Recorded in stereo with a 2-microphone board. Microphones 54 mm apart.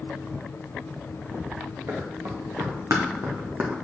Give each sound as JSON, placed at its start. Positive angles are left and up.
{"t": 1.9, "sound": "running footsteps", "side_deg": -75, "distance_m": 2.5}